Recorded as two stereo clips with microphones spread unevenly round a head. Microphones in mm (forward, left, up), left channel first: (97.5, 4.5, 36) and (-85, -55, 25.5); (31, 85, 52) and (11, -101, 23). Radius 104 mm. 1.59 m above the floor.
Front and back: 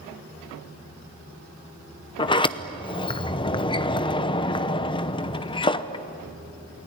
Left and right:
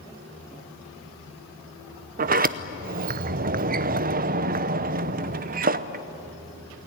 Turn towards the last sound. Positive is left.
turn(degrees=-45)